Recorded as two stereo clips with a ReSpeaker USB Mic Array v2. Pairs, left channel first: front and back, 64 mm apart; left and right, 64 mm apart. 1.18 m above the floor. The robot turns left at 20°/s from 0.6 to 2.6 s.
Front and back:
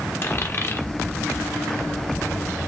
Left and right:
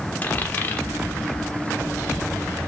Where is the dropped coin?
40° left, 1.1 m; by 0.9 s 35° left, 1.1 m.